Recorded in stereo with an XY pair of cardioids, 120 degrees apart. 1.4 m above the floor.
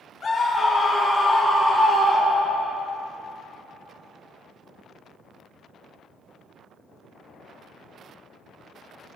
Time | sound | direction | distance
0.2 | a scream | 35° left | 0.8 m